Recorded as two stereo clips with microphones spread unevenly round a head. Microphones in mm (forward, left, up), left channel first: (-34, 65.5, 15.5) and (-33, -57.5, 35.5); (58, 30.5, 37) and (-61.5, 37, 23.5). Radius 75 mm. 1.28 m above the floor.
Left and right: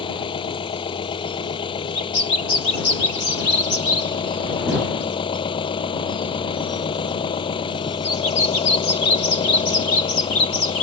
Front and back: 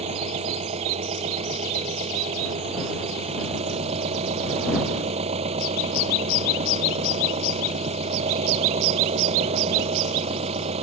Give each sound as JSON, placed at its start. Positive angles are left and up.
{"t": 0.0, "sound": "an engine running", "azimuth_deg": 140}